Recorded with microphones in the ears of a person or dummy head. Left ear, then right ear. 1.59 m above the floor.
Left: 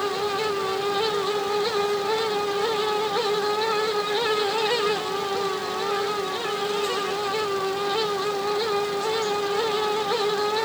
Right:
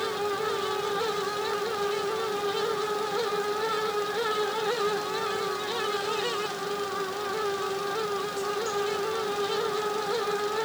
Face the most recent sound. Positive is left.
No sound to turn to.